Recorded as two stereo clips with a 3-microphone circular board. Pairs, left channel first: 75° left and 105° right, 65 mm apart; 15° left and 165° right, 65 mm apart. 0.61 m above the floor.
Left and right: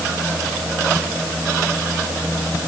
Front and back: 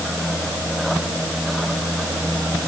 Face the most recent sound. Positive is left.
No sound to turn to.